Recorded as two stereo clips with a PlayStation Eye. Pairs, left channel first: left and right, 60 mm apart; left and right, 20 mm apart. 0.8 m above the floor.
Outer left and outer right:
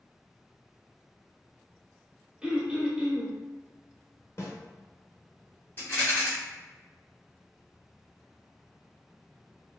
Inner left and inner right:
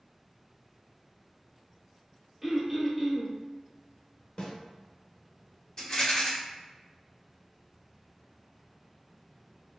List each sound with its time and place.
2.4 s throat clearing: 15° right (ahead or behind), 1.2 m
4.4 s a snare drum: 45° left (ahead or behind), 1.2 m
5.8 s a rattle: 35° left (ahead or behind), 2.0 m